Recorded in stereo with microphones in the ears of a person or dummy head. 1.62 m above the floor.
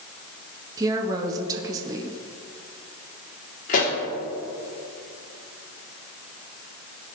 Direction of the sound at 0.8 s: 15° right (ahead or behind).